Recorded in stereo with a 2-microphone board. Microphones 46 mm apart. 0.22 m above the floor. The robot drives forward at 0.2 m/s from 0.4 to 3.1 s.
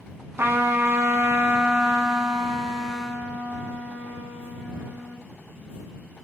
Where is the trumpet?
55° right (ahead or behind), 0.5 m; by 5.2 s 30° right (ahead or behind), 0.9 m.